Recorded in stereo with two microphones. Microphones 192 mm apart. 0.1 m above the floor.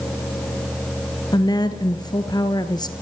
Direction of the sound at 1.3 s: 20° left (ahead or behind).